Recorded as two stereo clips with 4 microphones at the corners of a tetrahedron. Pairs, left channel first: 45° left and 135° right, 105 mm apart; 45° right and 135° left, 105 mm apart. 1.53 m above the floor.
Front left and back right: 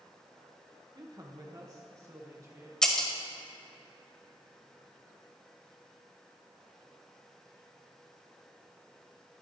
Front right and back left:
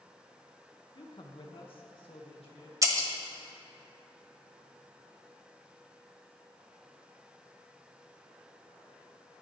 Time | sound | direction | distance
0.9 | a man speaking | 85° right | 1.6 m
2.8 | breaking glass | 120° left | 1.5 m